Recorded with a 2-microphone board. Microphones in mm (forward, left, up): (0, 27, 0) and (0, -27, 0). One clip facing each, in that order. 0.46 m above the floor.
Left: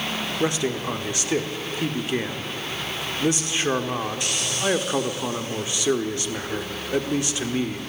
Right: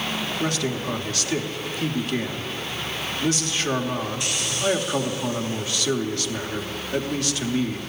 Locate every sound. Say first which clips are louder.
0.4 s a man speaking: left 3 dB; 20° left (ahead or behind), 0.8 m